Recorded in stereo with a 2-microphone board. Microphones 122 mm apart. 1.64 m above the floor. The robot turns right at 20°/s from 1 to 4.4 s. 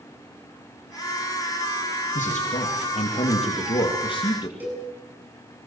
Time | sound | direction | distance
2.1 | a man speaking | 95° left | 3 m
4.6 | a cowbell | 15° right (ahead or behind) | 9 m